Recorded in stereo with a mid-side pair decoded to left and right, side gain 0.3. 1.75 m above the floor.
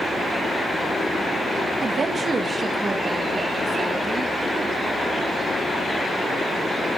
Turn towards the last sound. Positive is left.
turn(degrees=-25)